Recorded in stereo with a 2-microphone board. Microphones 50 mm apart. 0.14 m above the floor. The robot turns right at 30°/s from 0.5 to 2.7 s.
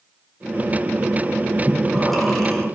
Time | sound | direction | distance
1.7 | breathing | 10° right (ahead or behind) | 2.5 m